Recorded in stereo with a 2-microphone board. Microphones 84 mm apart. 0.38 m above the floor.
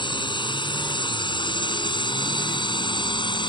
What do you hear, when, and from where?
0.0 s a drone: 70° left (ahead or behind)